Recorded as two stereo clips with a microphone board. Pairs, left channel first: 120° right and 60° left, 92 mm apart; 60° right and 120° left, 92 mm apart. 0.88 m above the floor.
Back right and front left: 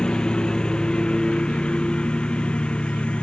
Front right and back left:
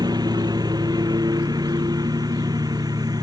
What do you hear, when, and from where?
0.0 s a lawn mower: 160° left